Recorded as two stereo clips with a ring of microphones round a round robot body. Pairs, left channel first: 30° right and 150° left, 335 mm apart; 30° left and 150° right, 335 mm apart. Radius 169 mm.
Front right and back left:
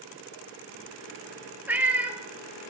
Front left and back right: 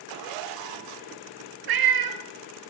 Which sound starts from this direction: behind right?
A cat meowing, at 1.7 s.